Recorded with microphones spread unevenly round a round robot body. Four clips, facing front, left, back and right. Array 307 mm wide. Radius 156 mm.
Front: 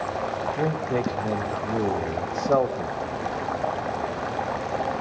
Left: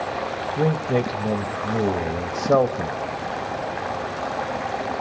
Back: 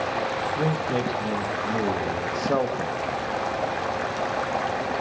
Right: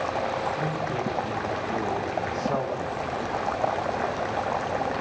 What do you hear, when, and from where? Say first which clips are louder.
0.6 s a man speaking: left 7 dB, front 1 dB; 90° left, 0.9 m